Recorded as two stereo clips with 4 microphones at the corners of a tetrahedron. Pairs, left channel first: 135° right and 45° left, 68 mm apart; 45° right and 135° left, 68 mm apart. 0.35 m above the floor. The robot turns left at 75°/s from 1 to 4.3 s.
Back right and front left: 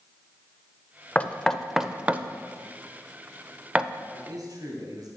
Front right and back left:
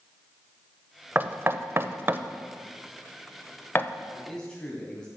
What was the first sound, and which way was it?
Knocking, 175° left.